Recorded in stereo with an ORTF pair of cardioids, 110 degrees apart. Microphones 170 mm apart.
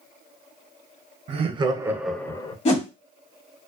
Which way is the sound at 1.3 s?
35° right.